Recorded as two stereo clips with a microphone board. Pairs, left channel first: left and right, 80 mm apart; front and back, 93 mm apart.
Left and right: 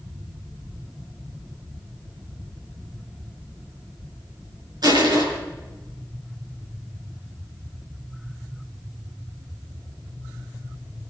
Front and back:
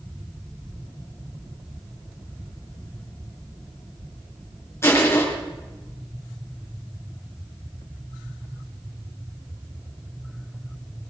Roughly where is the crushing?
Ahead right.